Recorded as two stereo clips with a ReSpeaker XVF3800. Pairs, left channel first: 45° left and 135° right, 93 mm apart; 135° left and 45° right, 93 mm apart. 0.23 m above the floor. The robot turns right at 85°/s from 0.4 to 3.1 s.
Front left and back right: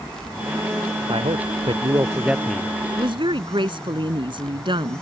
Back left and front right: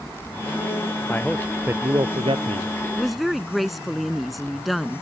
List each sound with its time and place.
1.1 s a man speaking: 160° right; by 2.7 s 20° right
2.9 s a woman speaking: 150° right; by 5.0 s 135° right